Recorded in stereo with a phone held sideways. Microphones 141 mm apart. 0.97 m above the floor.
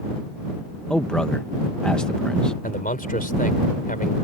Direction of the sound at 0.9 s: 5° left (ahead or behind).